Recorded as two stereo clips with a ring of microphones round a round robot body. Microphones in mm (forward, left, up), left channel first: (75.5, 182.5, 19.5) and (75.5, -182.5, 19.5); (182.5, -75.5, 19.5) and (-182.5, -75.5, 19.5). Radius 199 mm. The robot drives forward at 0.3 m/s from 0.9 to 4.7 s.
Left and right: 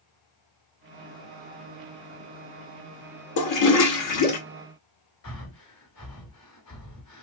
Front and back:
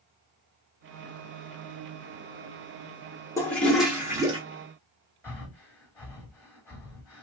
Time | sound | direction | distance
3.4 | a toilet flushing | 80° left | 0.9 m
5.2 | breathing | 95° left | 1.5 m